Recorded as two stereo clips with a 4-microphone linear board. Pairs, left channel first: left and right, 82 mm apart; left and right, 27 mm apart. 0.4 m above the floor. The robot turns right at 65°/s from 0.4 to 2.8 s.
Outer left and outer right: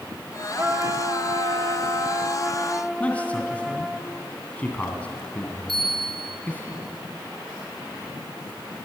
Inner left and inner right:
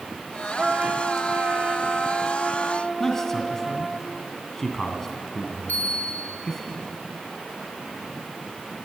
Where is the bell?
80° left, 7 m.